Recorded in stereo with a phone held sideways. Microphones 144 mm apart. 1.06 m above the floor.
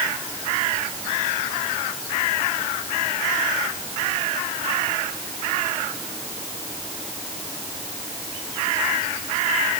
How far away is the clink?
I don't hear a clink.